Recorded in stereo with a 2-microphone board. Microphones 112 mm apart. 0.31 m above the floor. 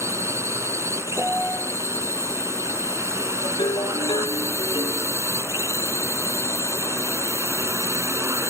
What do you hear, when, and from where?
0.0 s a drone: 25° right (ahead or behind)
1.2 s a piano: 15° right (ahead or behind)
3.4 s a ringtone: 45° left (ahead or behind)